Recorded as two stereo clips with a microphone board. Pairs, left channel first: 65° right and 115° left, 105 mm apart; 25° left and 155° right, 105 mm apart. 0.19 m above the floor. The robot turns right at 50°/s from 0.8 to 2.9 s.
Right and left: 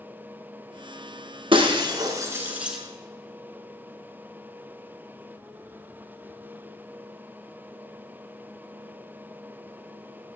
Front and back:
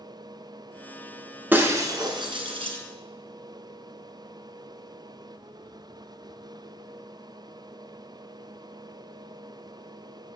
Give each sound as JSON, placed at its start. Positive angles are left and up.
{"t": 1.5, "sound": "breaking glass", "azimuth_deg": 130, "distance_m": 1.4}